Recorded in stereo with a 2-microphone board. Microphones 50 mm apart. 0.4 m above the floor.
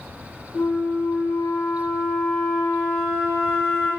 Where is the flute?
35° left (ahead or behind), 1.7 m.